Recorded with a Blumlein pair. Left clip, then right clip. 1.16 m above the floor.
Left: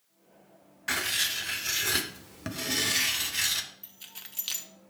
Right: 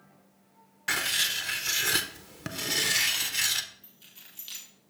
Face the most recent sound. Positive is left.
turn(degrees=45)